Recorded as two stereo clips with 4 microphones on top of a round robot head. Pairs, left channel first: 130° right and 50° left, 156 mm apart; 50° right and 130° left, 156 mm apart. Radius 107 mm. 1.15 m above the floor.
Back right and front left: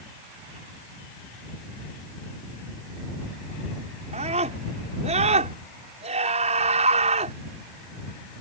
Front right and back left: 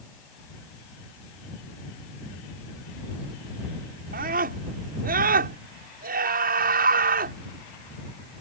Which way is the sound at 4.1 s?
100° left.